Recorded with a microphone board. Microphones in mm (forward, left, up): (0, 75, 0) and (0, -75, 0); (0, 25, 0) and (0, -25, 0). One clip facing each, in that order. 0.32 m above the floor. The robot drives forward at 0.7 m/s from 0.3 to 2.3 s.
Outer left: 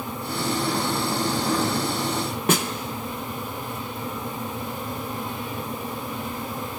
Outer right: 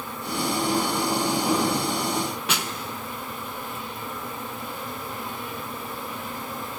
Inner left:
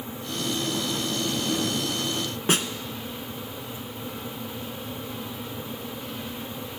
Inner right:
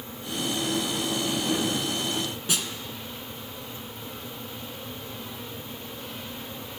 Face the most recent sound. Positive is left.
turn(degrees=45)  # may be behind; listen again after turning